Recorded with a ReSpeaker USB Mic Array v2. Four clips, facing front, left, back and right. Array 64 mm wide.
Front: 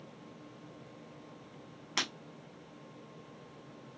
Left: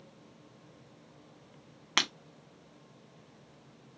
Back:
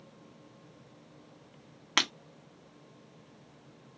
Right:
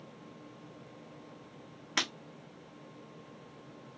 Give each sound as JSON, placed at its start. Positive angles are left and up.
{"t": 2.0, "sound": "breaking glass", "azimuth_deg": 140, "distance_m": 0.9}